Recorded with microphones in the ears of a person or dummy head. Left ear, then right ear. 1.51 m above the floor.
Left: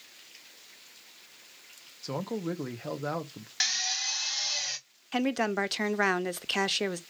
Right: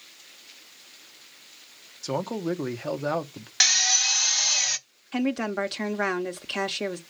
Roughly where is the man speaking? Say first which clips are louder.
Right 5 dB; centre.